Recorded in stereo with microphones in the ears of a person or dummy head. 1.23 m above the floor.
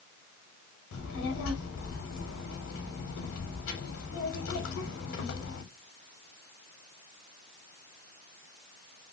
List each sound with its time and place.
0.9 s a child speaking: 80° left, 0.7 m